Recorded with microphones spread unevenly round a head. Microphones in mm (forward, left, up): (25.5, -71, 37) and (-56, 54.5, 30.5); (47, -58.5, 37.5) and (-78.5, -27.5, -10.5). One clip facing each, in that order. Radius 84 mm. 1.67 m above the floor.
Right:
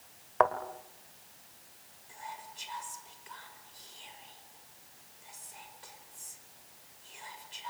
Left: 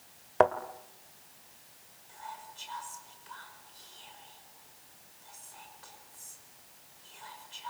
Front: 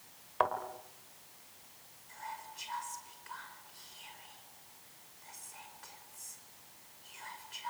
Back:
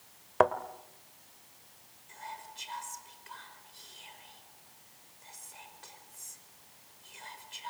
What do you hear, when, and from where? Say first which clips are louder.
0.4 s a thud: left 3 dB, back 7 dB; 145° left, 1.5 m
2.1 s whispering: even, even; 130° right, 5.5 m